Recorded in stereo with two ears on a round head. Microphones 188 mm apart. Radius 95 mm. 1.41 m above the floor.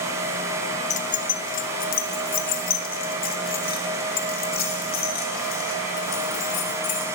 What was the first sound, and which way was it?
Keys jangling, 35° left (ahead or behind).